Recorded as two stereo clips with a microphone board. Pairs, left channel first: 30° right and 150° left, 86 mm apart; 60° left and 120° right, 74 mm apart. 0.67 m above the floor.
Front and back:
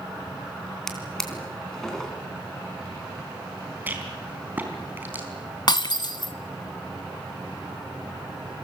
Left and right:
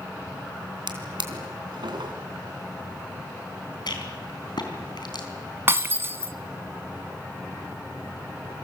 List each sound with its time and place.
0.9 s a drawer: 115° right, 3.5 m
3.9 s a rattle: 80° left, 4.5 m
5.7 s breaking glass: 60° right, 1.2 m